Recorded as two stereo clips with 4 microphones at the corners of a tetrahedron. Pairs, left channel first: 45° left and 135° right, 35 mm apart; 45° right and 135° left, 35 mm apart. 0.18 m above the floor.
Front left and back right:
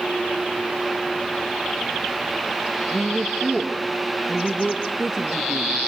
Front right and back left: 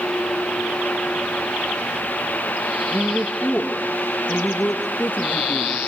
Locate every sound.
2.9 s a woman speaking: 40° right, 3.5 m